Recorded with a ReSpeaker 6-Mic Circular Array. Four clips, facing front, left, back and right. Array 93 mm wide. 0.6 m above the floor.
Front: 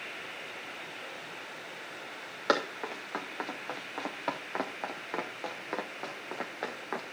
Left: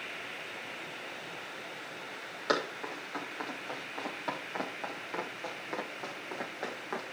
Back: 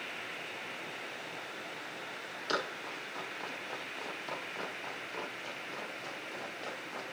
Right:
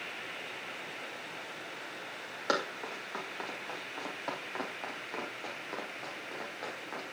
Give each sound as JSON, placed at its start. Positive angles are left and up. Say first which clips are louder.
{"t": 2.5, "sound": "running footsteps", "louder": "left 1 dB, front 7 dB", "azimuth_deg": -10, "distance_m": 5.0}